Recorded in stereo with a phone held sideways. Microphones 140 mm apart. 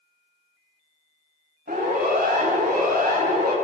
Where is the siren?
90° right, 9.5 m; by 3.5 s 85° right, 9 m.